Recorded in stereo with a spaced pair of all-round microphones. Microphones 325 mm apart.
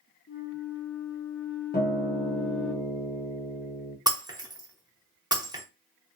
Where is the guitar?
30° left (ahead or behind), 0.8 m.